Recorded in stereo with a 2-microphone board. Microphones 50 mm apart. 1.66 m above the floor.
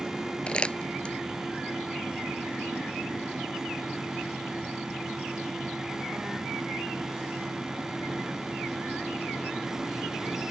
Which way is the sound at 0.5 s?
20° left (ahead or behind).